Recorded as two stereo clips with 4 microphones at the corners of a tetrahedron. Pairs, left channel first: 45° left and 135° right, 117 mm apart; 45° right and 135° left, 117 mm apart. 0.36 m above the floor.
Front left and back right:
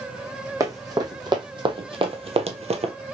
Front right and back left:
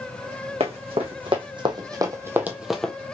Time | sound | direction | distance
0.6 | running footsteps | 165° left | 1.5 m